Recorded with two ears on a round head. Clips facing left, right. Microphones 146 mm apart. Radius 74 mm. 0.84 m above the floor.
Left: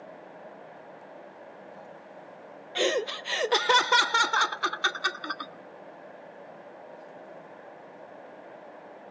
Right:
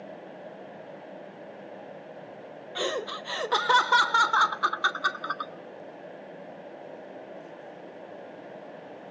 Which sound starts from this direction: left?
Laughter, at 2.8 s.